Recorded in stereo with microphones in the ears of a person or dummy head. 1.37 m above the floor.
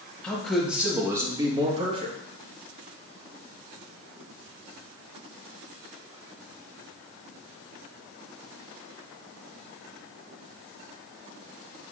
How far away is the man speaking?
About 1.9 m.